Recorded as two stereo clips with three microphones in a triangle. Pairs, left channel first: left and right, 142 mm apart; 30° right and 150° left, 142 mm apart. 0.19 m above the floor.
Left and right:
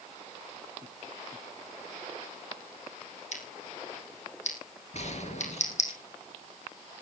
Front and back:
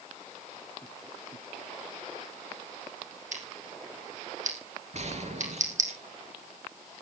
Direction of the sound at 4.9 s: 120° left.